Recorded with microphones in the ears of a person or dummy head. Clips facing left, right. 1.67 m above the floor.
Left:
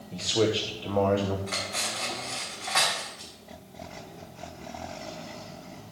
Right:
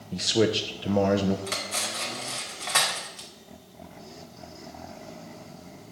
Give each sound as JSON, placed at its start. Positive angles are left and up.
{"t": 0.1, "sound": "a man speaking", "side_deg": -20, "distance_m": 0.8}
{"t": 1.5, "sound": "cutlery clinking", "side_deg": -50, "distance_m": 2.5}